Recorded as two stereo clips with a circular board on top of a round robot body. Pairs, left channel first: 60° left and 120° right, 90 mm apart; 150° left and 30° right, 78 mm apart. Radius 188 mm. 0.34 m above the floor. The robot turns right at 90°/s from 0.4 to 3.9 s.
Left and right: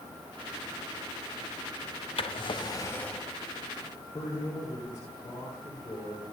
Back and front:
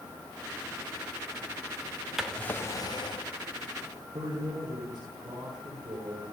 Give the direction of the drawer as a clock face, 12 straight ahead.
10 o'clock.